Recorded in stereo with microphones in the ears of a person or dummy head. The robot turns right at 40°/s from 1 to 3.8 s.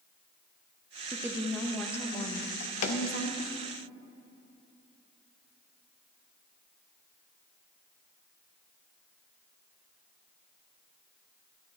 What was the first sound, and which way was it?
A woman speaking, 20° right.